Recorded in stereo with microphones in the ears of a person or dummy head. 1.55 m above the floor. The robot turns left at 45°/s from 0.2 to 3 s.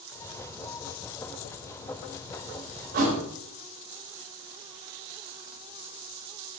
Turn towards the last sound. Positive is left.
turn(degrees=-50)  # may be behind; listen again after turning